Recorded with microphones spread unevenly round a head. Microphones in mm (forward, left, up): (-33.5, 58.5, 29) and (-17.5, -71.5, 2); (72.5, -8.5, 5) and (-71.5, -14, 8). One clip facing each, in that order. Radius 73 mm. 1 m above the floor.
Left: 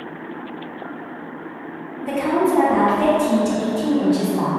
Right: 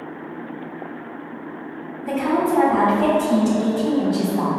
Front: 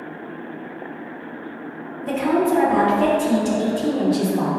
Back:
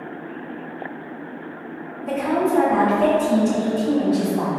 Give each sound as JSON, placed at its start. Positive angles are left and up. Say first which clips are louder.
{"t": 2.0, "sound": "a woman speaking", "louder": "left 1 dB, front 2 dB", "azimuth_deg": 30, "distance_m": 0.8}